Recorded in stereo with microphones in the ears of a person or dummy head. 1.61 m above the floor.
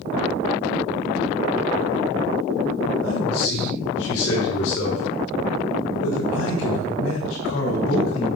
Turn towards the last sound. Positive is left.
turn(degrees=85)